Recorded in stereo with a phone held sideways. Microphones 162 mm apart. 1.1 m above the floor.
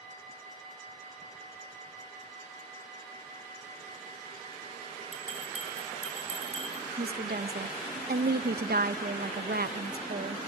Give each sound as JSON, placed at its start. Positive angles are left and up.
{"t": 5.1, "sound": "a bell", "side_deg": -40, "distance_m": 5.5}
{"t": 7.0, "sound": "a woman speaking", "side_deg": -75, "distance_m": 0.9}